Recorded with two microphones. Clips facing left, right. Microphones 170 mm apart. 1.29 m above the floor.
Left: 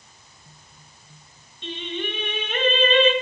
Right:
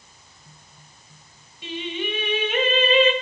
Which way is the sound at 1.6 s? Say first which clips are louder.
Right 1 dB; 10° right (ahead or behind).